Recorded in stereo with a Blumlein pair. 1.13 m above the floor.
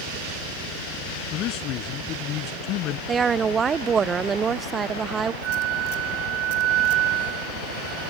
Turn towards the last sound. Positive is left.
turn(degrees=-35)